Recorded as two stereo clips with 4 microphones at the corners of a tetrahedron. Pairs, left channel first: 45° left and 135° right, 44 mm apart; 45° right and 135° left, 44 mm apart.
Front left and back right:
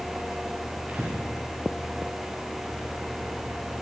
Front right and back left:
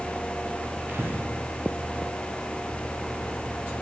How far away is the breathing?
About 9.5 m.